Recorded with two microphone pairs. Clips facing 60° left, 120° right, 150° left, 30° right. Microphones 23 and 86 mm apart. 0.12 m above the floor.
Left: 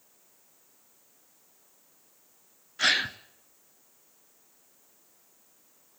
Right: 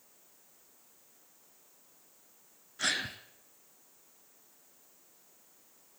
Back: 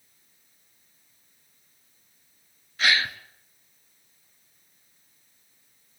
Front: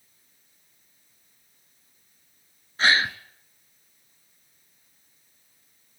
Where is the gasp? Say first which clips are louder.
Left 8 dB, front 3 dB; 20° left, 0.7 m.